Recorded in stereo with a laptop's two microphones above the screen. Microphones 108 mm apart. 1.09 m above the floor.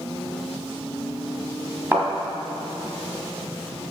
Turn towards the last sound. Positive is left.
turn(degrees=-15)  # may be behind; listen again after turning